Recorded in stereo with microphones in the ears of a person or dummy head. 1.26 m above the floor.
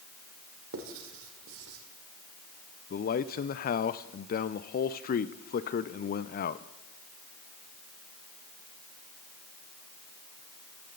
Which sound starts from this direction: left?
A man speaking, at 2.9 s.